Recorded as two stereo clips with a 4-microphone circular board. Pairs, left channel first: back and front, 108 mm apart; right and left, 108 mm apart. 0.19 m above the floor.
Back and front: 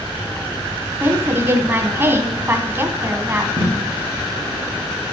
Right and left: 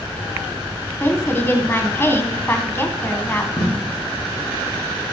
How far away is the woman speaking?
About 1.2 m.